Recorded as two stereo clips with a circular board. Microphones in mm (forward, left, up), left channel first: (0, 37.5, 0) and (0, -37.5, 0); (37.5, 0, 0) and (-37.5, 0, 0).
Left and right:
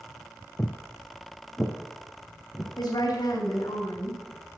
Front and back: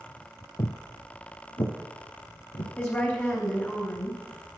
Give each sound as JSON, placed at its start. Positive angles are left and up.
{"t": 0.6, "sound": "footsteps", "azimuth_deg": 20, "distance_m": 0.9}
{"t": 2.8, "sound": "a woman speaking", "azimuth_deg": 60, "distance_m": 3.0}